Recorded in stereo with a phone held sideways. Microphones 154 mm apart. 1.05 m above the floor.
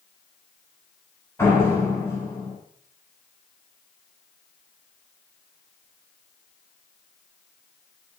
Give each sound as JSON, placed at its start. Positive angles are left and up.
{"t": 1.4, "sound": "a door slam", "side_deg": 20, "distance_m": 5.5}